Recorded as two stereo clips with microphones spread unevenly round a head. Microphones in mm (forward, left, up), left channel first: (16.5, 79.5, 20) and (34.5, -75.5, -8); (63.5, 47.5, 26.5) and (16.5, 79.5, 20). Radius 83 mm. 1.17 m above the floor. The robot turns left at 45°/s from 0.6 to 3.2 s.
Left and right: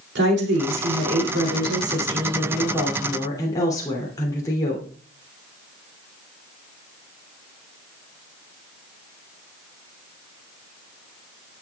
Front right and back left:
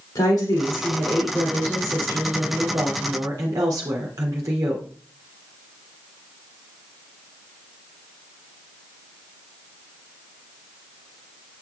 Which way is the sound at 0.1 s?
75° right.